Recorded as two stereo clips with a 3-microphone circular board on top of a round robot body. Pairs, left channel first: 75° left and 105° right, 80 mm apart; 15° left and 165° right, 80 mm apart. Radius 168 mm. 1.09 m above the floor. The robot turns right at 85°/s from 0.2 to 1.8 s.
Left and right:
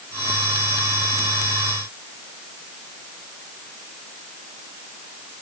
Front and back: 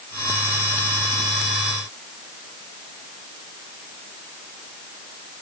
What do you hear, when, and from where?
Only background noise.